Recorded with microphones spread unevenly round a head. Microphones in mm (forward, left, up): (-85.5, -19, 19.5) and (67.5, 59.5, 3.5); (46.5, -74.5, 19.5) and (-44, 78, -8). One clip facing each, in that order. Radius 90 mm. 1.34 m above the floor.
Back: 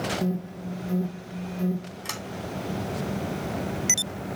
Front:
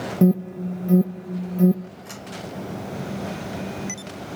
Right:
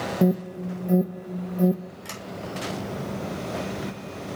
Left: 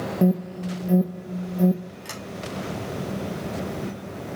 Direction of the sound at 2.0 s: 150° right.